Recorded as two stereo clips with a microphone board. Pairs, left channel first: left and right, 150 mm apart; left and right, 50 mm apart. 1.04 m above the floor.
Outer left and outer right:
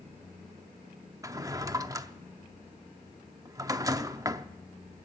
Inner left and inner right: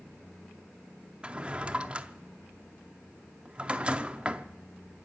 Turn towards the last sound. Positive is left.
turn(degrees=-25)  # may be behind; listen again after turning